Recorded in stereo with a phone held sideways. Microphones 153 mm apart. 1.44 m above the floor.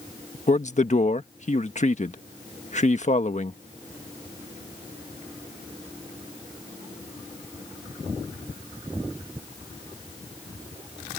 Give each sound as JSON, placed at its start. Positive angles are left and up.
{"t": 0.5, "sound": "a man speaking", "side_deg": 50}